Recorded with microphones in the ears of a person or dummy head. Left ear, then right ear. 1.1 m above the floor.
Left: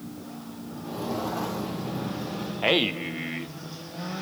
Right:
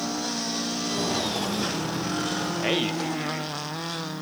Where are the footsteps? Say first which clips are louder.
Right 2 dB; 25° right (ahead or behind), 1.5 m; by 2.5 s 60° right (ahead or behind), 2.5 m.